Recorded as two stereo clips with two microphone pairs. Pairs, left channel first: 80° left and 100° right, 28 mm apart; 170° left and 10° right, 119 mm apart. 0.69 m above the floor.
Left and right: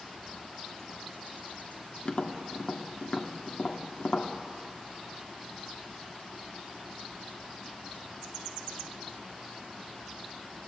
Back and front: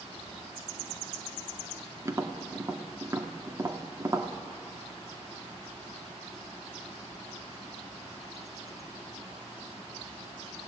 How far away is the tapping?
About 1.5 m.